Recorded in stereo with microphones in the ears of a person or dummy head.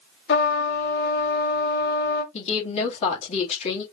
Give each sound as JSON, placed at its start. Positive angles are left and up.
{"t": 0.3, "sound": "a trumpet", "side_deg": 55, "distance_m": 1.1}
{"t": 2.3, "sound": "a woman speaking", "side_deg": 35, "distance_m": 2.0}